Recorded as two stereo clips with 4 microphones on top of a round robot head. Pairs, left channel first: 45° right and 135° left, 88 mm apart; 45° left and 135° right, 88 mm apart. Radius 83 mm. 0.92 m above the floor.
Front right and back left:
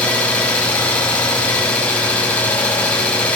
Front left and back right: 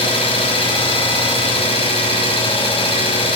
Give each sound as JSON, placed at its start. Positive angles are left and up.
{"t": 0.0, "sound": "an engine running", "azimuth_deg": 35, "distance_m": 5.0}